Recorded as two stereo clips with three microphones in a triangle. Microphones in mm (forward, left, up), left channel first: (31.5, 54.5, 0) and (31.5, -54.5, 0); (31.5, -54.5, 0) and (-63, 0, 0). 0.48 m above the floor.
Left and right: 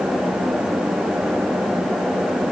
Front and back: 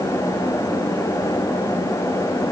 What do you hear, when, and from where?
Only background noise.